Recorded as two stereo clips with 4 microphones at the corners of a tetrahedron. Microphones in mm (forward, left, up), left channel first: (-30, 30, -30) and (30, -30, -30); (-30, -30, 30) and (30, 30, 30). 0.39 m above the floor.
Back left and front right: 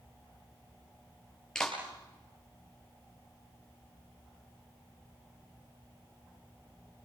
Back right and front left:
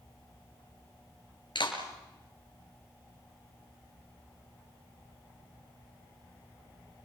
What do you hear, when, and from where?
1.6 s a clap: 140° right, 5.5 m